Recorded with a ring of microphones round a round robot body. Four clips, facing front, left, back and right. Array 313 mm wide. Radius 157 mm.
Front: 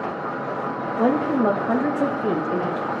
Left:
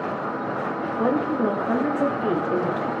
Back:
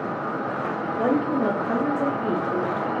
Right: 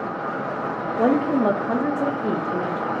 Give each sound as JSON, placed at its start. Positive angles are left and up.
{"t": 1.0, "sound": "a woman speaking", "azimuth_deg": -65, "distance_m": 0.9}